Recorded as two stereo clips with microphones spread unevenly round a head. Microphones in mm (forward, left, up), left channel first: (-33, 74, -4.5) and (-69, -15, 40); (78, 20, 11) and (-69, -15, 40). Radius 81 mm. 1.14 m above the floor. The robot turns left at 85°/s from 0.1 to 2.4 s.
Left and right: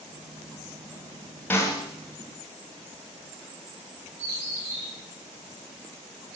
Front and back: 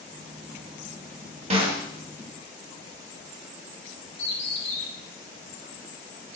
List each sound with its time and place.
1.5 s a snare drum: 145° left, 1.4 m; by 1.9 s 115° left, 1.4 m
4.2 s a bird: 40° right, 2.5 m